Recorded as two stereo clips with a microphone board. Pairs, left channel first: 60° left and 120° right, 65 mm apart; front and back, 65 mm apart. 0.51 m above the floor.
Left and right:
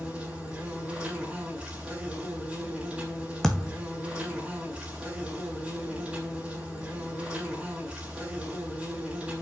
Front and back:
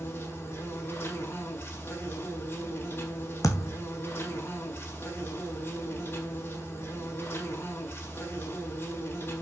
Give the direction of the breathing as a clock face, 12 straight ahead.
No breathing in this recording.